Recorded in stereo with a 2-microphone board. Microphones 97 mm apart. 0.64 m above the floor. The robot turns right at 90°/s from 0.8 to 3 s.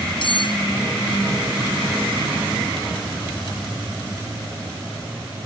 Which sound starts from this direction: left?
Cutlery clinking, at 0.2 s.